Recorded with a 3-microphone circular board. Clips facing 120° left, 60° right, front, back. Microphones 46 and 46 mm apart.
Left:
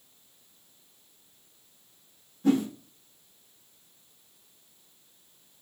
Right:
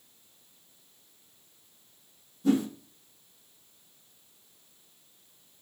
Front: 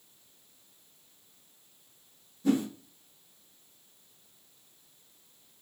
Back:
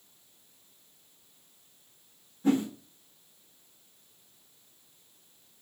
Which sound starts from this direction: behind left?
A whoosh, at 2.4 s.